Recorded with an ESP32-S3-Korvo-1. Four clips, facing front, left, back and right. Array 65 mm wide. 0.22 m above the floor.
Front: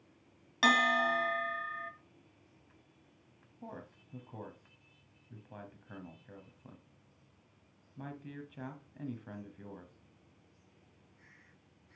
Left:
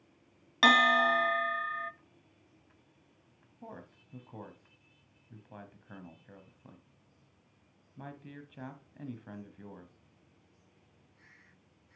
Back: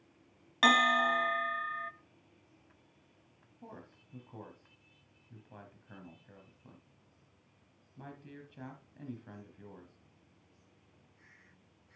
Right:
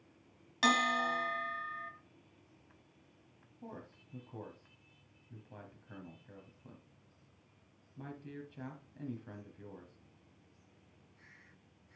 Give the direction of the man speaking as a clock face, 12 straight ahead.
10 o'clock.